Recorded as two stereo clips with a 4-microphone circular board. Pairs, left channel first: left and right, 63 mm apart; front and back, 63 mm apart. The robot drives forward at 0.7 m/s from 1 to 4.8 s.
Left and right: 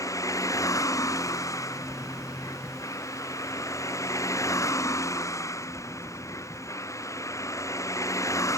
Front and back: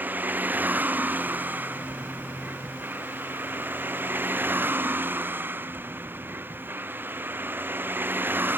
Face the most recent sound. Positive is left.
turn(degrees=125)